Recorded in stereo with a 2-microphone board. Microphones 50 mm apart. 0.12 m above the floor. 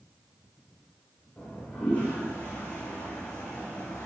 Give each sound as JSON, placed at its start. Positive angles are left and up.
{"t": 1.4, "sound": "a toilet flushing", "side_deg": 25, "distance_m": 5.0}